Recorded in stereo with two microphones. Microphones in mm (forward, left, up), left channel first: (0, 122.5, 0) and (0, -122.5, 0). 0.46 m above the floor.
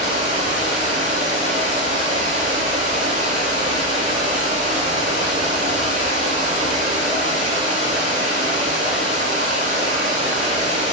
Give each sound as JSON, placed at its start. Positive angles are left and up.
{"t": 0.0, "sound": "running water", "side_deg": -30, "distance_m": 0.8}